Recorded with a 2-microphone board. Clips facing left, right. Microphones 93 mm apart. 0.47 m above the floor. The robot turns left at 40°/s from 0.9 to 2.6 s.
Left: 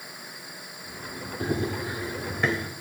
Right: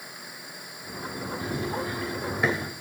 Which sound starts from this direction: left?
Running footsteps, at 1.4 s.